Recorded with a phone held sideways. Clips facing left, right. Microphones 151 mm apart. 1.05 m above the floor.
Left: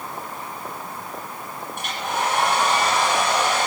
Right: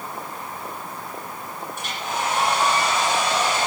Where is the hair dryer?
60° left (ahead or behind), 9 m.